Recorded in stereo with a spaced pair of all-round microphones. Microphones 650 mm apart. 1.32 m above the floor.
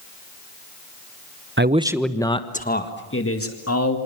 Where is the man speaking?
20° right (ahead or behind), 0.8 m; by 4.0 s 25° left (ahead or behind), 2.5 m.